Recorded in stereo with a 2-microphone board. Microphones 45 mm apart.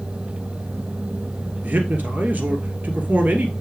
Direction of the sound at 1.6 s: 45° right (ahead or behind).